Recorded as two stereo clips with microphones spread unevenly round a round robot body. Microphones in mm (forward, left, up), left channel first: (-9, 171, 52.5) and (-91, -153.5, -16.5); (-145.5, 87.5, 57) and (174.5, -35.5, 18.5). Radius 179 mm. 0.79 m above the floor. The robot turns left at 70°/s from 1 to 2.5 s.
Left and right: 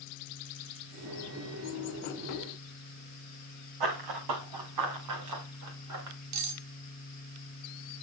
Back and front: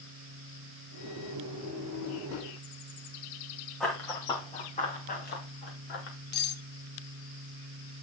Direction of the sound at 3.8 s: 115° right.